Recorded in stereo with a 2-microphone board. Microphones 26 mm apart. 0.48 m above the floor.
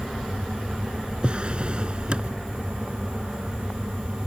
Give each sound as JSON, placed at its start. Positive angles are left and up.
{"t": 1.2, "sound": "a drawer", "side_deg": -35}